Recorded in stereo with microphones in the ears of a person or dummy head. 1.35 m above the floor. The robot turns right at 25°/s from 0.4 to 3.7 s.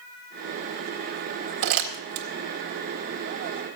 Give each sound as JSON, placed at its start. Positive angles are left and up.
{"t": 1.6, "sound": "crumpling", "side_deg": -50, "distance_m": 1.6}